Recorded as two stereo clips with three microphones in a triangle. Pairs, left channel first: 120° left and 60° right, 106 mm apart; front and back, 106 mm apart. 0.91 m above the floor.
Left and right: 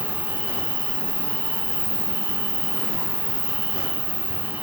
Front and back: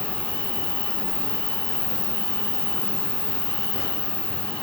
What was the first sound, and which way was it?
An insect, 155° left.